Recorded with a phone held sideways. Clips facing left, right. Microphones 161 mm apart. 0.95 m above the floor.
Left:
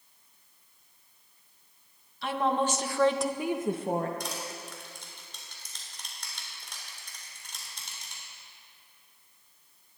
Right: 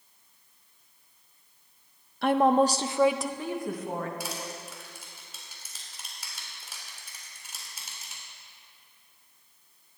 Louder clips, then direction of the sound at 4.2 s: Right 1 dB; 5° right (ahead or behind).